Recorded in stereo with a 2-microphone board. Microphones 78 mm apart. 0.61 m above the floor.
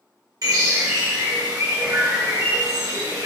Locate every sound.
0.4 s a bird: 50° right (ahead or behind), 1.5 m